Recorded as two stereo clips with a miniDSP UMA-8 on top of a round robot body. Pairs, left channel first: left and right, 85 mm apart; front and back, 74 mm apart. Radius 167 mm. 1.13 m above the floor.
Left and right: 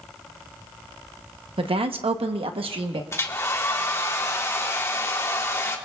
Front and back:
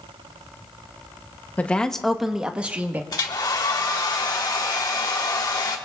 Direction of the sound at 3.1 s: 30° left.